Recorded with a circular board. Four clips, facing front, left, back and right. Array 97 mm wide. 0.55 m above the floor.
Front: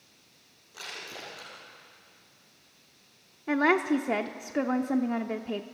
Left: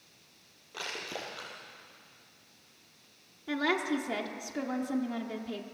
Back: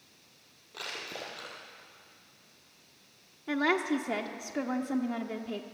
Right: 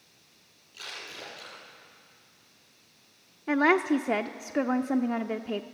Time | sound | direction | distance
0.7 | crushing | 110° left | 6 m
3.5 | a woman speaking | 60° right | 0.8 m